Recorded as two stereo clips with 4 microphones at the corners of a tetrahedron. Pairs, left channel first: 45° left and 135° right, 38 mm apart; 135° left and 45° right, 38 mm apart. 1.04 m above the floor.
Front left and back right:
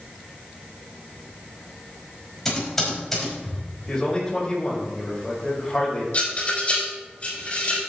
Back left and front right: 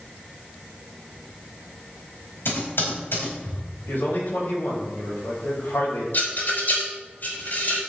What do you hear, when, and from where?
2.5 s typing on a keyboard: 125° left, 5 m
3.9 s a man speaking: 115° left, 4.5 m
6.1 s a rattle: 95° left, 4.5 m